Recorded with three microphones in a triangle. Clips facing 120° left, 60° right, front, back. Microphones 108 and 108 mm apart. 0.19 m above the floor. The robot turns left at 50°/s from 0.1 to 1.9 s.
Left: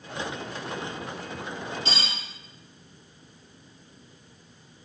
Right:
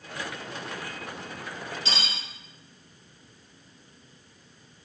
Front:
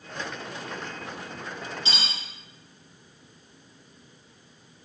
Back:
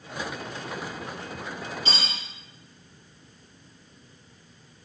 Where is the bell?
I don't hear a bell.